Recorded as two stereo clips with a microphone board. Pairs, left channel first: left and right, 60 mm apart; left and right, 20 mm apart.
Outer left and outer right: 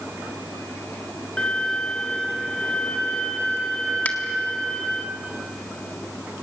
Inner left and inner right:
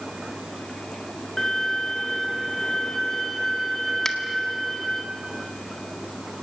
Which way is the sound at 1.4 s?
15° left (ahead or behind).